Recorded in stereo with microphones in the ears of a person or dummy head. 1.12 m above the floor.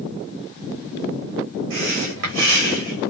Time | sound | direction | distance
1.7 | breathing | 60° right (ahead or behind) | 2 m